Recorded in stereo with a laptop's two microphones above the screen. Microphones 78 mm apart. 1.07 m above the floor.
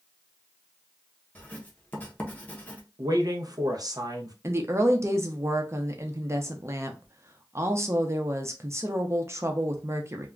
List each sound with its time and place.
1.4 s writing: 20° left (ahead or behind), 0.6 m
3.0 s a man speaking: 50° right (ahead or behind), 0.6 m
4.4 s a woman speaking: 35° right (ahead or behind), 0.6 m